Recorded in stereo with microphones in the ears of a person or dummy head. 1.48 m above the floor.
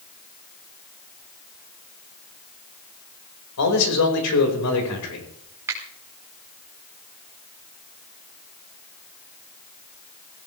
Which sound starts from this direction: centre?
A finger snap, at 5.7 s.